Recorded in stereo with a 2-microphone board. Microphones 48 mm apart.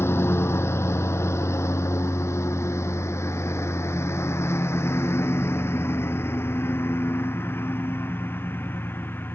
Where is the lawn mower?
65° left (ahead or behind); by 9.4 s 45° left (ahead or behind).